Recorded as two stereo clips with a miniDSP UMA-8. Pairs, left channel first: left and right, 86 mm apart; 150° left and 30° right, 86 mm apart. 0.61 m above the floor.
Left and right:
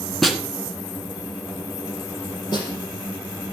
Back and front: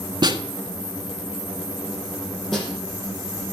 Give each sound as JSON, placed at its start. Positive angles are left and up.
{"t": 0.2, "sound": "a snare drum", "azimuth_deg": 0, "distance_m": 1.4}
{"t": 2.5, "sound": "a snare drum", "azimuth_deg": 65, "distance_m": 5.0}